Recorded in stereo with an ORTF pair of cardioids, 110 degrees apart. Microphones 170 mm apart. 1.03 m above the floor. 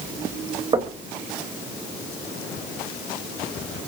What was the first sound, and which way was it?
Knocking, 30° right.